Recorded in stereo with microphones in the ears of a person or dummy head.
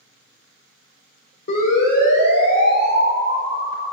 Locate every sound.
1.5 s a siren: 50° left (ahead or behind), 5 m; by 3.9 s 45° left (ahead or behind), 6 m